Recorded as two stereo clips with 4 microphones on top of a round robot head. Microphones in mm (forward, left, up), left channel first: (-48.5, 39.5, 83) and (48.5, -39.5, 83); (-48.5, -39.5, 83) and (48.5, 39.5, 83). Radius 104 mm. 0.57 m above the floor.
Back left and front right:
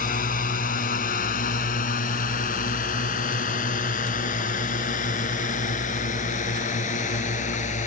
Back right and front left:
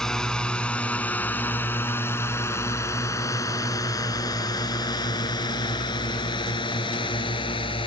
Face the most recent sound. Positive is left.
turn(degrees=170)